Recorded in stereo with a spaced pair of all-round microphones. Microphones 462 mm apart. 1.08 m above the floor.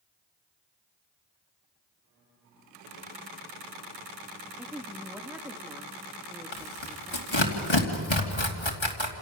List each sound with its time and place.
4.6 s a woman speaking: 5° right (ahead or behind), 1.8 m
6.5 s tearing paper: 75° left (ahead or behind), 2.5 m